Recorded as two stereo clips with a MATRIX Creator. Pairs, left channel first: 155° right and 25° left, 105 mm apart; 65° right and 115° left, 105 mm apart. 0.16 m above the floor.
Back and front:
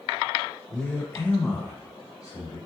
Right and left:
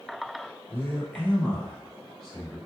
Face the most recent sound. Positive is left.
turn(degrees=-160)